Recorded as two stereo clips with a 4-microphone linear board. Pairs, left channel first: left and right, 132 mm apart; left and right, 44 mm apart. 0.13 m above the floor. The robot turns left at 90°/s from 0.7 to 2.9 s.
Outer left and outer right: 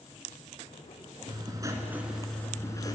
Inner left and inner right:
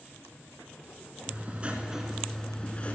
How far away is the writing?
About 1.3 m.